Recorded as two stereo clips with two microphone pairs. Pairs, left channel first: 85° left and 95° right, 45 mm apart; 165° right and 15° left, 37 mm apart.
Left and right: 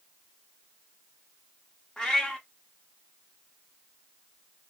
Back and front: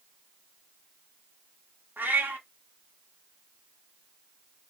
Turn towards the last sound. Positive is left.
turn(degrees=10)